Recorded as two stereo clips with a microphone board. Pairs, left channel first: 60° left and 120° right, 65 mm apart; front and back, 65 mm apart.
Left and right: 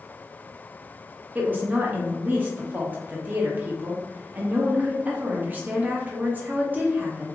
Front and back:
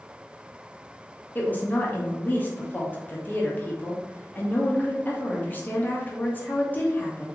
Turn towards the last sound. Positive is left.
turn(degrees=-60)